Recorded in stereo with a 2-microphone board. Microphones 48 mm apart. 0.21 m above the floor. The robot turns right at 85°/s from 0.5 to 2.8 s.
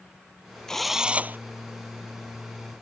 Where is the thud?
I don't hear a thud.